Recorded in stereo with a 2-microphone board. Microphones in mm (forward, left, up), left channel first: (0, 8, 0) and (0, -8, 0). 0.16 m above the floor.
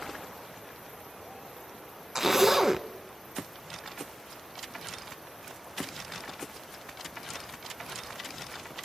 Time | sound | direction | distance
2.1 | a zipper | 15° right (ahead or behind) | 0.5 m